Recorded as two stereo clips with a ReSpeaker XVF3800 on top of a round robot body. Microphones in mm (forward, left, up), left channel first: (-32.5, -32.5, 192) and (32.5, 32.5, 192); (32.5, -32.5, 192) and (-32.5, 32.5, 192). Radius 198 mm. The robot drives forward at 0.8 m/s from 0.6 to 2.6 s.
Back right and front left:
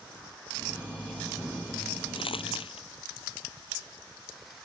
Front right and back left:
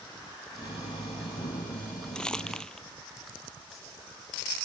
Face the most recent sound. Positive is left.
turn(degrees=-125)